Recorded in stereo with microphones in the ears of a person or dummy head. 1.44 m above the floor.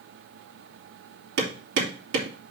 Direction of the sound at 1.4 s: 65° right (ahead or behind).